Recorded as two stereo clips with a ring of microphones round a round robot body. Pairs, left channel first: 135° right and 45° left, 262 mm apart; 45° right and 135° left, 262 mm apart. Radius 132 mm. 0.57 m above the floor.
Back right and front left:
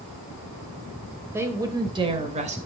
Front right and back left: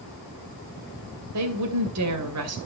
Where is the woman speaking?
125° left, 2.5 m; by 2.6 s 110° left, 2.5 m.